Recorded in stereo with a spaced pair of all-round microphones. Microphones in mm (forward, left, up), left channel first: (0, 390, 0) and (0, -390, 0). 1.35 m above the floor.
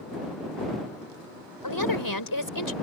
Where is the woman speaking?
25° left (ahead or behind).